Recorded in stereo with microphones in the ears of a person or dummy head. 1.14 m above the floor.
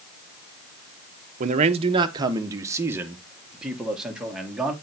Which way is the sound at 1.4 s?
50° right (ahead or behind).